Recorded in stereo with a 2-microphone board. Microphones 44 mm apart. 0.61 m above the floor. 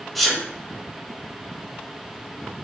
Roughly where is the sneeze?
Centre.